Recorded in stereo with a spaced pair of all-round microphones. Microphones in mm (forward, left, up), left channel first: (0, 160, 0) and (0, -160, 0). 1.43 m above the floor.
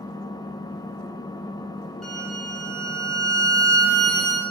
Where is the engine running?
10° left (ahead or behind), 0.8 m.